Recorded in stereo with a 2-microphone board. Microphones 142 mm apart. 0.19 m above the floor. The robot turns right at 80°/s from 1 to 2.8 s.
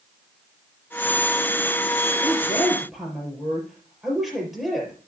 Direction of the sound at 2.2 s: 135° left.